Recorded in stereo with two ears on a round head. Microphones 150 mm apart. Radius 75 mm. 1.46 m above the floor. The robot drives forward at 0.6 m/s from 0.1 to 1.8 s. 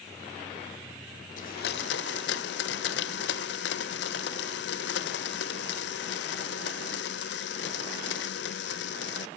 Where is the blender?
45° left (ahead or behind), 0.6 m; by 9.3 s 70° left (ahead or behind), 0.5 m.